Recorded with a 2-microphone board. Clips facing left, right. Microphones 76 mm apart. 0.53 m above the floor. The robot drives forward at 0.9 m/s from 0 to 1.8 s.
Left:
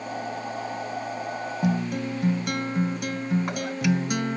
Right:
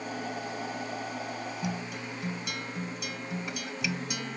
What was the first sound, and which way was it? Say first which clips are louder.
A guitar: left 10 dB; 45° left (ahead or behind).